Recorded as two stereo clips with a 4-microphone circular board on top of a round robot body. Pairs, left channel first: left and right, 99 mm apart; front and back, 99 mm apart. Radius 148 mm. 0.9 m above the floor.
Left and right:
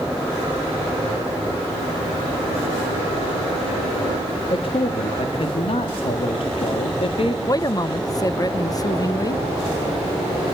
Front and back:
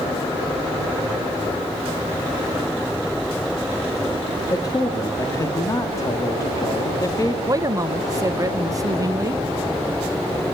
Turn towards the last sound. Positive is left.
turn(degrees=135)